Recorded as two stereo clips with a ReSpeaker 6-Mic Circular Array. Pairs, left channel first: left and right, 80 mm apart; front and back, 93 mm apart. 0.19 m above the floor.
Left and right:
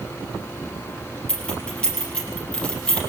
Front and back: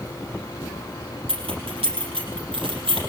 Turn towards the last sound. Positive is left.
turn(degrees=165)